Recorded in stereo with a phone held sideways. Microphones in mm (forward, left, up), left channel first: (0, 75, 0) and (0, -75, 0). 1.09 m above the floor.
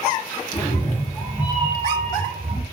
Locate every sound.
0.5 s a cat meowing: 30° left (ahead or behind), 0.7 m; by 2.6 s 40° right (ahead or behind), 1.2 m